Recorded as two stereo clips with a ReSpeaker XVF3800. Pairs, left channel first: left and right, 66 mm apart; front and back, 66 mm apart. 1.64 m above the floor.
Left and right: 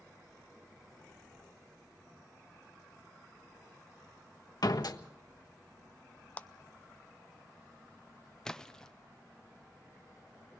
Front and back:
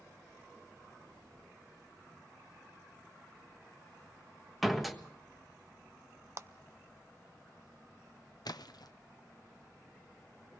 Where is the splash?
10° left, 0.8 m.